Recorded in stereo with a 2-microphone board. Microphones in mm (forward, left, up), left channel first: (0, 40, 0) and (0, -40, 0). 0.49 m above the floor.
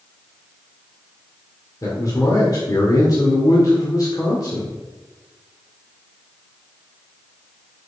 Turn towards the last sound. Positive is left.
turn(degrees=45)  # may be behind; listen again after turning